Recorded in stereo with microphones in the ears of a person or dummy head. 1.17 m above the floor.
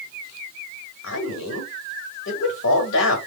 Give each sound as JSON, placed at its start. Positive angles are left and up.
{"t": 1.0, "sound": "a man speaking", "side_deg": 70, "distance_m": 1.9}